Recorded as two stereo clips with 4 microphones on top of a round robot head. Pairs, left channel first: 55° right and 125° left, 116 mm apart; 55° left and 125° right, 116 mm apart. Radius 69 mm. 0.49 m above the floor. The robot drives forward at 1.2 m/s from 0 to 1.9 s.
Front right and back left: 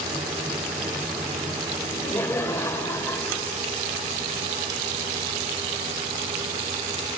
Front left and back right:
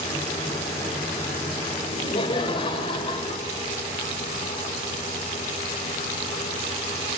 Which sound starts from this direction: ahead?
Laughter, at 1.8 s.